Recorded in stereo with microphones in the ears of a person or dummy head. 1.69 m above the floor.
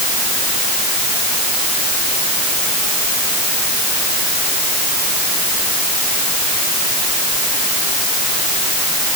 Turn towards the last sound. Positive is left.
No sound to turn to.